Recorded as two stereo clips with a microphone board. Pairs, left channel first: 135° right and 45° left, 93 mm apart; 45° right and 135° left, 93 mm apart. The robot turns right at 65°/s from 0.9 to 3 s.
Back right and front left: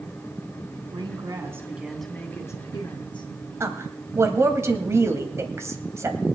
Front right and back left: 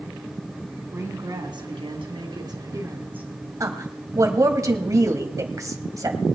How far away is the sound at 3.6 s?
About 1.8 m.